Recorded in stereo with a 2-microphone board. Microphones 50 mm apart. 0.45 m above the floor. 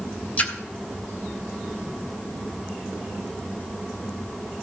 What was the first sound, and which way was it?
A splash, 30° left (ahead or behind).